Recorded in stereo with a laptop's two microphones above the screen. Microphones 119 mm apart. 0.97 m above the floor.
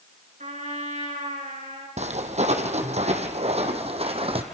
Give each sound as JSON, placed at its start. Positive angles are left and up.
{"t": 0.4, "sound": "a trumpet", "side_deg": -85, "distance_m": 6.0}
{"t": 2.0, "sound": "footsteps", "side_deg": -70, "distance_m": 2.5}